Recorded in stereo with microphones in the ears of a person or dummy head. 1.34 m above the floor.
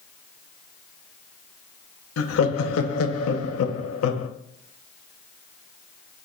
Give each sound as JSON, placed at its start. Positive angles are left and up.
{"t": 2.2, "sound": "laughter", "side_deg": 85, "distance_m": 0.7}